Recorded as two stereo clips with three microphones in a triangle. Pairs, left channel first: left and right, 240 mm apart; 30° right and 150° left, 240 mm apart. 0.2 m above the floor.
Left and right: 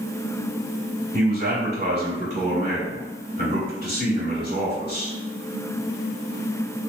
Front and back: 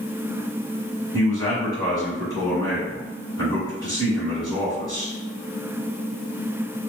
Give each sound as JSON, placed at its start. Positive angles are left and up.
{"t": 1.1, "sound": "a man speaking", "azimuth_deg": -85, "distance_m": 1.7}